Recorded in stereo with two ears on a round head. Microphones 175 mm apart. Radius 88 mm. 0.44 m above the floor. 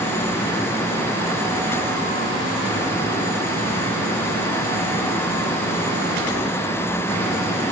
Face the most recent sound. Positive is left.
No sound to turn to.